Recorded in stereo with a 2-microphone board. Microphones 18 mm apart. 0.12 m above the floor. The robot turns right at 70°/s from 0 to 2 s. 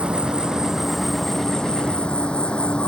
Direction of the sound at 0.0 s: 75° right.